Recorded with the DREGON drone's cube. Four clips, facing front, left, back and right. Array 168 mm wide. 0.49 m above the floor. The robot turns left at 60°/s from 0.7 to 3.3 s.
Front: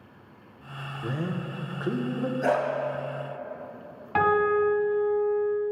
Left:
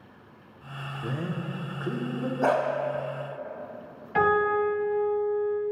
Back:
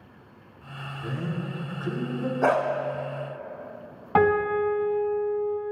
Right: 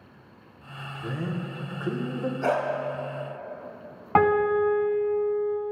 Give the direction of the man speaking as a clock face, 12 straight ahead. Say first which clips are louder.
Right 1 dB, front 1 dB; 11 o'clock.